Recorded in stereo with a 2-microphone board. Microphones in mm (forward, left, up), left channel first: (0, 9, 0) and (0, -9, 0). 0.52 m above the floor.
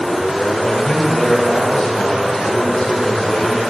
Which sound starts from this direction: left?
A man speaking, at 0.6 s.